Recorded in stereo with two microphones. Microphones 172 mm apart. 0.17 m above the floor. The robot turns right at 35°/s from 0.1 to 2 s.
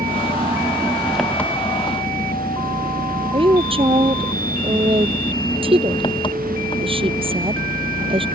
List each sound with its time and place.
0.0 s an engine running: 40° right; by 8.3 s 30° left
3.3 s a woman speaking: 30° right (ahead or behind)